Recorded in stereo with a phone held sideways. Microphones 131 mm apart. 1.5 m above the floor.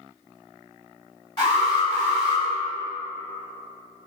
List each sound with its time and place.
1.4 s an alarm: 35° left (ahead or behind), 1.6 m